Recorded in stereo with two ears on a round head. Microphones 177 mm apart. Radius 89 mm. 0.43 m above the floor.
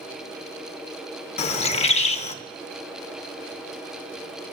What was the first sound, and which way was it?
A bird, 35° left (ahead or behind).